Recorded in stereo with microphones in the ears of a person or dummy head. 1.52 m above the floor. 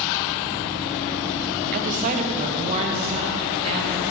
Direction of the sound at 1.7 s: 40° right (ahead or behind).